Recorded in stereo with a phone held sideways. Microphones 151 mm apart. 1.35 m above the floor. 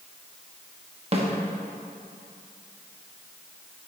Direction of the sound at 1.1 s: 40° right (ahead or behind).